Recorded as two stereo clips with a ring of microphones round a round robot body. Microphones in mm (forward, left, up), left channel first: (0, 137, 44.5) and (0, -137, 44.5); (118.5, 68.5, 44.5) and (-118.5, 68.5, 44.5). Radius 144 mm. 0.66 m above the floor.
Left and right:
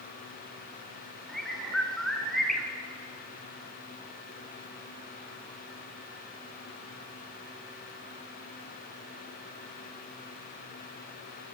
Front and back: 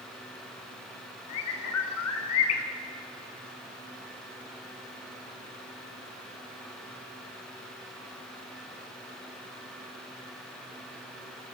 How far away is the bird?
About 1.7 m.